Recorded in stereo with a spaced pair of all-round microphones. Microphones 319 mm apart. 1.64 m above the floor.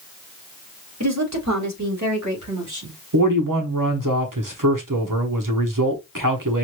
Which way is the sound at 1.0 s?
55° right (ahead or behind).